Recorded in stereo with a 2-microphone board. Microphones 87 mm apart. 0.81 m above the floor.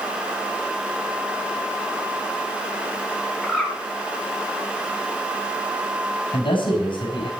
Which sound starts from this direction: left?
A man speaking, at 6.3 s.